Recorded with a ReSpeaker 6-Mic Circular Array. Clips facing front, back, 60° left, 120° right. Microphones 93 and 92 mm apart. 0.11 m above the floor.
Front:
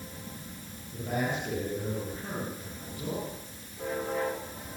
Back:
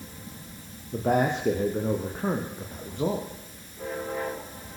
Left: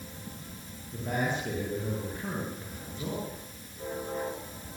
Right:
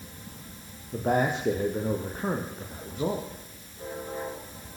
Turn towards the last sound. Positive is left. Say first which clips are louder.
# back 8 dB, right 6 dB
turn(degrees=-160)